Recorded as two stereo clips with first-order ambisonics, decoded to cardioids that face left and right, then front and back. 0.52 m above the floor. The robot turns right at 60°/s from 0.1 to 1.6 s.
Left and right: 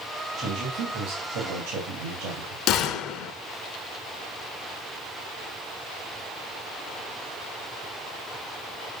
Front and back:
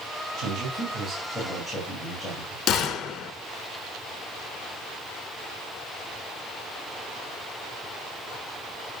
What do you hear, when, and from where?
0.4 s a man speaking: 150° right, 3 m; by 2.6 s 75° right, 3 m
2.7 s a gunshot: 45° left, 0.9 m